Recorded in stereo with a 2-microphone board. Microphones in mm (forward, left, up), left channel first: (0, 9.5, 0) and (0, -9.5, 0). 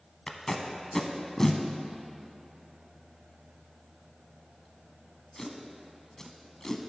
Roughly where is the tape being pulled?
Left.